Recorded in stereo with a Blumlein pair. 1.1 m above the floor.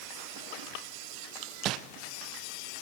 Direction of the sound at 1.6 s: 35° right.